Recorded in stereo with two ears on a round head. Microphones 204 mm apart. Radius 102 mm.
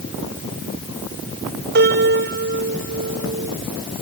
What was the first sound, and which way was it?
A piano, 50° right (ahead or behind).